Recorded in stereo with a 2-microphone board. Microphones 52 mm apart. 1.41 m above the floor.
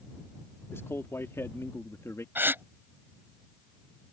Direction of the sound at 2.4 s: 40° right (ahead or behind).